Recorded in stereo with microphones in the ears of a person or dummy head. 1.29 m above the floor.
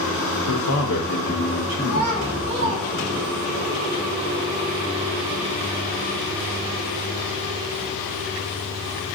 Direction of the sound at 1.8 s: 35° right (ahead or behind).